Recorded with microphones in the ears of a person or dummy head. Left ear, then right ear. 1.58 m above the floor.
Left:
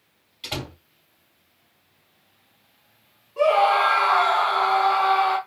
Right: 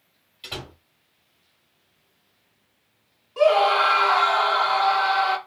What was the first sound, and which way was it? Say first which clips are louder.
A door slam: left 3 dB; 5° left (ahead or behind).